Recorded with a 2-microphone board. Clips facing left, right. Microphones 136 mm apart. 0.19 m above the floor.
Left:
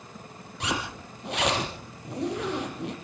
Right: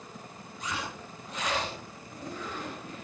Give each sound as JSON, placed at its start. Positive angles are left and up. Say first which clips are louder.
{"t": 0.6, "sound": "a zipper", "louder": "left 5 dB", "side_deg": 75, "distance_m": 5.5}